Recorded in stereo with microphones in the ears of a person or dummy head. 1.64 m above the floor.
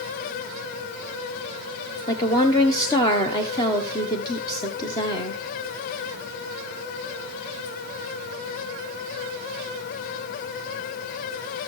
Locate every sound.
2.1 s a woman speaking: 20° left (ahead or behind), 1.3 m